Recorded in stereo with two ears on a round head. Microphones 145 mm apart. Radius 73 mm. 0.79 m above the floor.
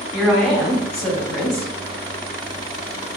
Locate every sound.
0.1 s a woman speaking: centre (ahead or behind), 2.5 m